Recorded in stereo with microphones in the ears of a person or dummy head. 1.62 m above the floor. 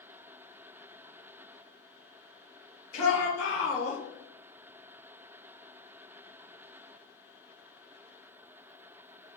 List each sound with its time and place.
2.9 s a shout: 85° left, 2 m; by 4.0 s 80° left, 2.5 m